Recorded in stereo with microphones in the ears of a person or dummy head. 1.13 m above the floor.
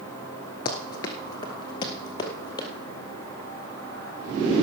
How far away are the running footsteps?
About 1.1 m.